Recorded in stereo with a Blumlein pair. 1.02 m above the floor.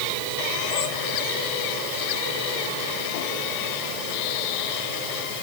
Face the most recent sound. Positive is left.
No sound to turn to.